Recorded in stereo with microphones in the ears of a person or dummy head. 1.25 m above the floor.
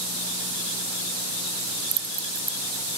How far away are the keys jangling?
About 0.7 m.